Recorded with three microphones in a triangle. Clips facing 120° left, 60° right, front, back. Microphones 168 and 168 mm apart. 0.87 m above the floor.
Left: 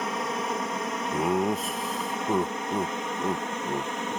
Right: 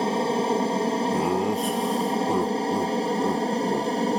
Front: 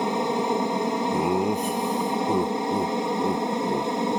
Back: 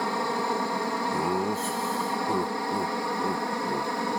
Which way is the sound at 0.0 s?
50° right.